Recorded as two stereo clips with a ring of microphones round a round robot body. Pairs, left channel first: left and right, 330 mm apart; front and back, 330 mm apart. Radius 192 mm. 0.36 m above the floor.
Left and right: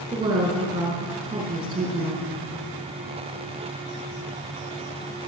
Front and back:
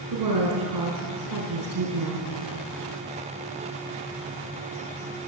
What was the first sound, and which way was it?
A woman speaking, 165° right.